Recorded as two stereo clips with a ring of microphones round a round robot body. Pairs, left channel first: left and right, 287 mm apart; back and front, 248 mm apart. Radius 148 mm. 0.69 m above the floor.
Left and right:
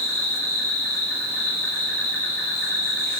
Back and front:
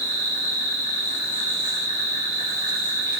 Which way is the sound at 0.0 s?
165° left.